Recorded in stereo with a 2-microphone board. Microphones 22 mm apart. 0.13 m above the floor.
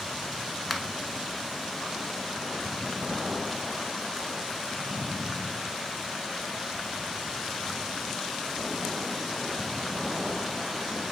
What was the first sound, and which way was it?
A finger snap, 5° left (ahead or behind).